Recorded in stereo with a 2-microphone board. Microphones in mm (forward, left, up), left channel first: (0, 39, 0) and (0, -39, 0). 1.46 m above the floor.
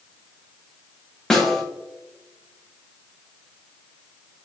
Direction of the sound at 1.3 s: 5° left (ahead or behind).